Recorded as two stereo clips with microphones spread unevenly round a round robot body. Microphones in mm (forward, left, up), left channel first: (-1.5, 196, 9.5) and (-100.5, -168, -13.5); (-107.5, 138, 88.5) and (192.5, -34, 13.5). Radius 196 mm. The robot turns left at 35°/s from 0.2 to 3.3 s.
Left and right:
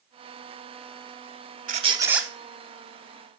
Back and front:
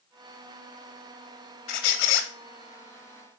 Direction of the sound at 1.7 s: 175° right.